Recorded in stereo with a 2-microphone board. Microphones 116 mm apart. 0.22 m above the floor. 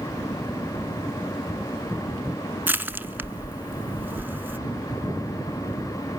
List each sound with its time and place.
2.7 s crushing: 15° right (ahead or behind), 0.8 m